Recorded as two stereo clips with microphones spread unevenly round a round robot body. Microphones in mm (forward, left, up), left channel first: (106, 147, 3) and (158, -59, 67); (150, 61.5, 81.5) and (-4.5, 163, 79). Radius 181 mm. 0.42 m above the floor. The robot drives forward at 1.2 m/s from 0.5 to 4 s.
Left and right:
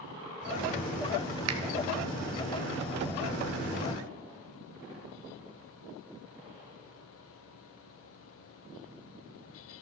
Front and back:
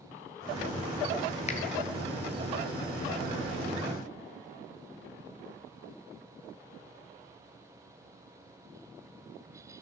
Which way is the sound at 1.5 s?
85° right.